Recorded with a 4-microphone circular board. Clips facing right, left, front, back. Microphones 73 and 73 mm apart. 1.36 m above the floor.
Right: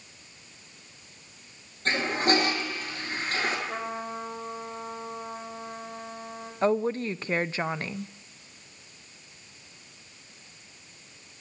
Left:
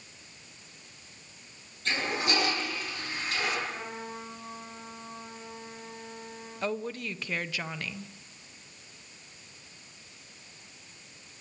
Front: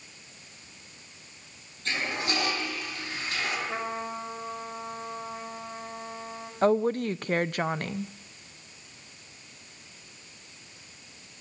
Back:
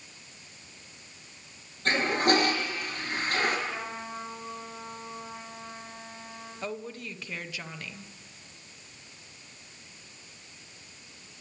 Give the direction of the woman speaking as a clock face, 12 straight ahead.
1 o'clock.